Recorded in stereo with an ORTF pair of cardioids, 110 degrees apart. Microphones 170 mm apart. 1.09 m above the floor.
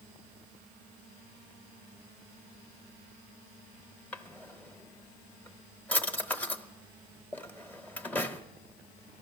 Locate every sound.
4.1 s a drawer: 10° left, 0.8 m